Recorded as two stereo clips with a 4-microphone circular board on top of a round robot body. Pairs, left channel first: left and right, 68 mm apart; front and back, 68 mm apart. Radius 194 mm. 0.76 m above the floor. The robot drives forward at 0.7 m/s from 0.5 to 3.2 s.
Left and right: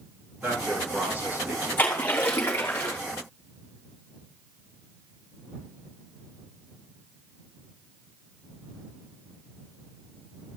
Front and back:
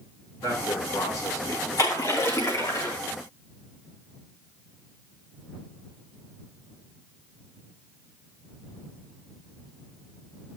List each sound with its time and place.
0.4 s a man speaking: 25° right, 10 m; by 1.7 s 30° right, 9 m
1.8 s a splash: 30° left, 3.5 m; by 3.0 s 40° left, 3 m